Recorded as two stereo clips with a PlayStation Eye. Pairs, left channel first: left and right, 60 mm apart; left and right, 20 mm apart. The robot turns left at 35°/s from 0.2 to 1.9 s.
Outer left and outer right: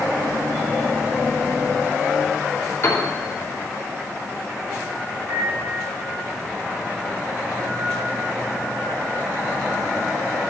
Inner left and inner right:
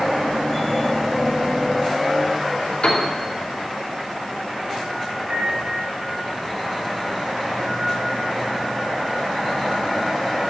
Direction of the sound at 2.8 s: 45° left (ahead or behind).